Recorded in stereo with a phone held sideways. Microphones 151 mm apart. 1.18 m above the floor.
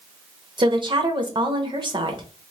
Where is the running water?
I don't hear running water.